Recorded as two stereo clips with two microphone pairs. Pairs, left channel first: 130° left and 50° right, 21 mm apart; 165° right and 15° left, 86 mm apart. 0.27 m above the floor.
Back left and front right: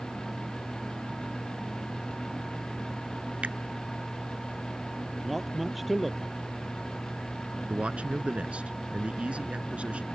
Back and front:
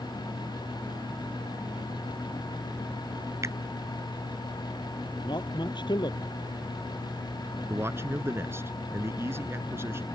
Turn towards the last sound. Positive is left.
turn(degrees=-40)